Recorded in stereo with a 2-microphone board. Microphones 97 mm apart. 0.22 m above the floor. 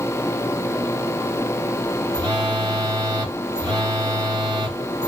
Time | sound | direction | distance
2.1 | a phone buzzing | 40° right (ahead or behind) | 2.0 m